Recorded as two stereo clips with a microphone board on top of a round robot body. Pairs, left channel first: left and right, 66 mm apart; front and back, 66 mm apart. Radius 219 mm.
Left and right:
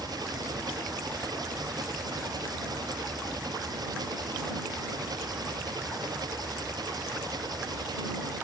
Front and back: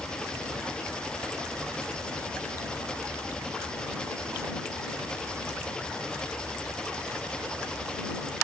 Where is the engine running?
75° right.